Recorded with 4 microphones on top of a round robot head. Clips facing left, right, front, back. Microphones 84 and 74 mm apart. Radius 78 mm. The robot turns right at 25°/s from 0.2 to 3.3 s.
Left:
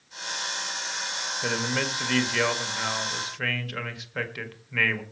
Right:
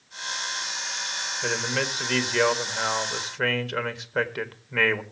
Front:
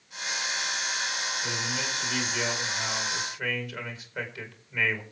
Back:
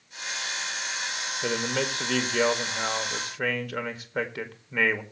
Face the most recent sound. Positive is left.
turn(degrees=-140)